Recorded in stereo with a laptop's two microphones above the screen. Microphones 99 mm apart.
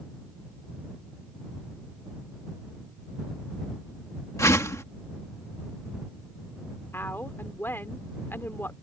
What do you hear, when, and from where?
4.4 s a whoosh: 35° left (ahead or behind)
6.9 s a woman speaking: 25° left (ahead or behind)